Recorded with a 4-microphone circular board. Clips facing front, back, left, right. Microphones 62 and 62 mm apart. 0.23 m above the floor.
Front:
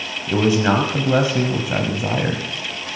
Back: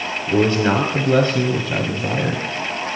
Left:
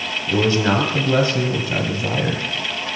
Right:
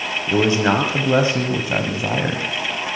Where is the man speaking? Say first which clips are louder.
Even, right 1 dB; 65° right, 1.0 m.